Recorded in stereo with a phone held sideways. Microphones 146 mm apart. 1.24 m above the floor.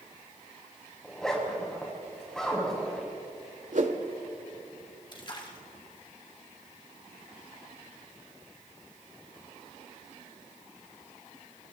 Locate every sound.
1.0 s a zipper: 5° left (ahead or behind), 6 m
3.7 s a whoosh: 60° right (ahead or behind), 1.8 m
5.1 s a splash: 35° left (ahead or behind), 2.5 m